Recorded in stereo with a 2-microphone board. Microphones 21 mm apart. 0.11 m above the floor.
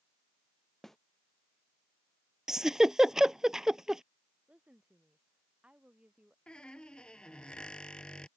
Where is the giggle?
25° right (ahead or behind).